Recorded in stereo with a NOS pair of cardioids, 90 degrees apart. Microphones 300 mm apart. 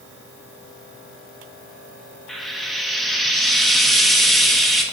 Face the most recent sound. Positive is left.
turn(degrees=0)